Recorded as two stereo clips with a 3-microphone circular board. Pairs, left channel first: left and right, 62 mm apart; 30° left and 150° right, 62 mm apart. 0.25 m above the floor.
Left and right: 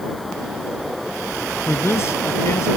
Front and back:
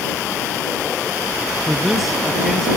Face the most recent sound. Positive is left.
turn(degrees=120)